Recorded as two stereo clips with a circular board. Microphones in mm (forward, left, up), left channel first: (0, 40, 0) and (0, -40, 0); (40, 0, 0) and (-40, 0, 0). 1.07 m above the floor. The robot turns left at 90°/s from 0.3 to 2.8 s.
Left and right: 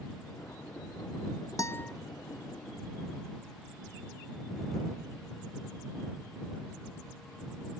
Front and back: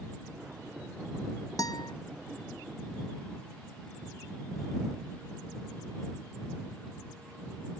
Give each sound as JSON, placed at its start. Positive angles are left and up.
{"t": 1.6, "sound": "a guitar", "azimuth_deg": 45}